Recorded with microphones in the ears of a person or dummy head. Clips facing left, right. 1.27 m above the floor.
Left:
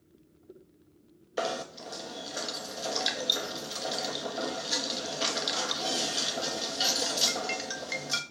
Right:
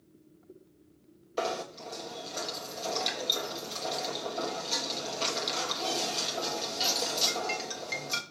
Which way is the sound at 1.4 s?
15° left (ahead or behind).